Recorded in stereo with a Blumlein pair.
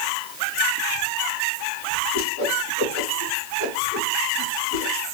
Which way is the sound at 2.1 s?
60° left.